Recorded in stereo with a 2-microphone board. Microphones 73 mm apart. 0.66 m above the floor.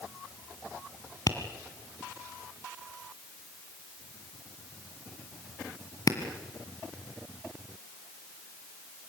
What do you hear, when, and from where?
1.3 s tapping: 55° left (ahead or behind), 2 m